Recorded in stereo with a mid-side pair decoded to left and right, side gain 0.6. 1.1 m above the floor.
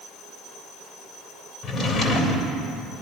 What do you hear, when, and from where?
1.6 s a drawer: 45° left, 2.5 m